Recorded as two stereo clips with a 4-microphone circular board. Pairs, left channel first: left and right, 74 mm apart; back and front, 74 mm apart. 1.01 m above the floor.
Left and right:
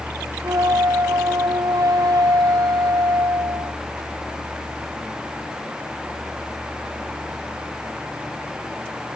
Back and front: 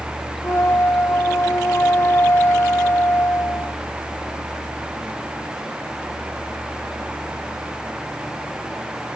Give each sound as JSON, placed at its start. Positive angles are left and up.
{"t": 0.4, "sound": "a flute", "azimuth_deg": -120}